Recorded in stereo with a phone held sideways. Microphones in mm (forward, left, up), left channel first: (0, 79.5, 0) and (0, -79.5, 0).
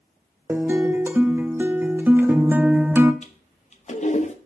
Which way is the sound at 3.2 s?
45° left (ahead or behind).